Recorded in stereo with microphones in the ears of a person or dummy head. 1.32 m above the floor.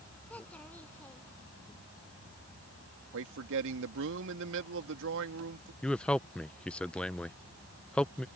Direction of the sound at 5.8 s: 5° left (ahead or behind).